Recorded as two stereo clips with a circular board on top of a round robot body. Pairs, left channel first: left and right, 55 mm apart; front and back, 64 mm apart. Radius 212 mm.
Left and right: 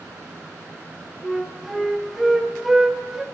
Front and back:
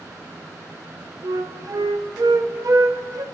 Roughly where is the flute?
Behind.